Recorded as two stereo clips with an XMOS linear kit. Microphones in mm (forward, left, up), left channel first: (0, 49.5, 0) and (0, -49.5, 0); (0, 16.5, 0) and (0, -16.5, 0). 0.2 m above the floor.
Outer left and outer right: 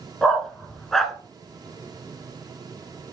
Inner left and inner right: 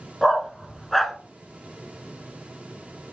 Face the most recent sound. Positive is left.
turn(degrees=5)  # may be behind; listen again after turning